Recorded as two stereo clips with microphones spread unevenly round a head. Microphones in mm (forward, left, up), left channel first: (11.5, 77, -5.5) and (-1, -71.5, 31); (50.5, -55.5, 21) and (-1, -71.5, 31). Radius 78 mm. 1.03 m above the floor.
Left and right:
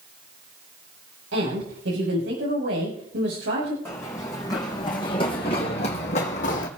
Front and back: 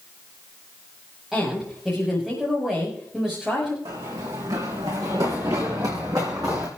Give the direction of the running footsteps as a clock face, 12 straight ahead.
7 o'clock.